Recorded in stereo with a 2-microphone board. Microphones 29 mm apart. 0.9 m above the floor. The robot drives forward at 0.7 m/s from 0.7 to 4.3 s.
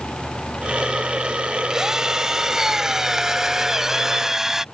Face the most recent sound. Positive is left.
turn(degrees=-15)  # may be behind; listen again after turning